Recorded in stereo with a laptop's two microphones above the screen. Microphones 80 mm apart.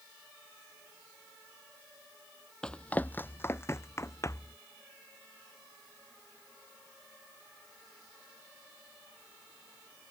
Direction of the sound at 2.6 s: 10° left (ahead or behind).